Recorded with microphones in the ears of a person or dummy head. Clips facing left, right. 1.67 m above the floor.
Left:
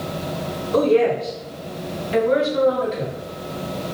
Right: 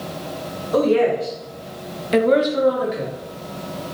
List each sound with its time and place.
0.7 s a woman speaking: 45° right (ahead or behind), 1.5 m; by 3.1 s 5° right (ahead or behind), 1.3 m